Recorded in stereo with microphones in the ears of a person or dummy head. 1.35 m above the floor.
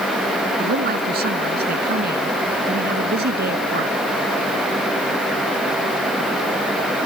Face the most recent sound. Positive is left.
turn(degrees=-55)  # may be behind; listen again after turning